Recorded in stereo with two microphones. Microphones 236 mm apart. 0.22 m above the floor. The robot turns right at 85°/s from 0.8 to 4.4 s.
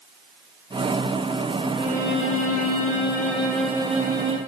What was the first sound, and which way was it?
A violin, 20° left.